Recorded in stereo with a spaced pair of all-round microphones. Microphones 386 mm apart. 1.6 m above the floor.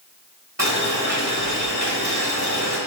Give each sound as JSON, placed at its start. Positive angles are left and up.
{"t": 0.6, "sound": "boiling", "side_deg": -45, "distance_m": 3.0}